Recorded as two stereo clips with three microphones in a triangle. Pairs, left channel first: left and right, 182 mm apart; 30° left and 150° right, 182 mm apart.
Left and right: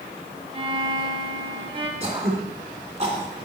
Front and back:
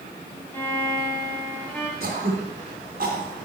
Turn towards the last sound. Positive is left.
turn(degrees=-135)